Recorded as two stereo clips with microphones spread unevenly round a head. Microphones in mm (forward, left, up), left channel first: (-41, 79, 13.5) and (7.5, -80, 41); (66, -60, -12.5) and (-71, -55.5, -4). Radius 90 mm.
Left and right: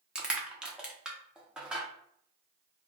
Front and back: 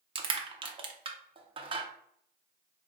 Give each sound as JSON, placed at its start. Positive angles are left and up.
{"t": 0.1, "sound": "crushing", "azimuth_deg": -150, "distance_m": 0.6}